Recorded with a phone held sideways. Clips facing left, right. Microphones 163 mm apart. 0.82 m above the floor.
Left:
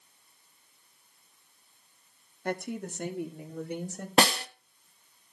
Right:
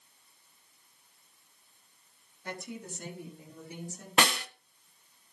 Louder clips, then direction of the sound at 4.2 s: Left 4 dB; 35° left (ahead or behind).